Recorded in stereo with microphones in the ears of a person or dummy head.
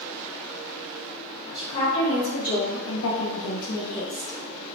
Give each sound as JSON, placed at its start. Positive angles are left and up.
{"t": 1.5, "sound": "a woman speaking", "side_deg": 30, "distance_m": 1.1}